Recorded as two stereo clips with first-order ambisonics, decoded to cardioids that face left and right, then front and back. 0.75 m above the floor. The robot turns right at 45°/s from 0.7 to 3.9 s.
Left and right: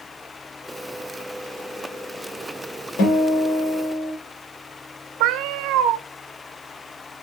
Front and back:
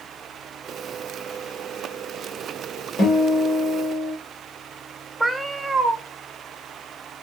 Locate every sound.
3.0 s a guitar: 65° left, 2.0 m; by 4.1 s 105° left, 2.0 m
5.2 s a cat meowing: 100° right, 0.5 m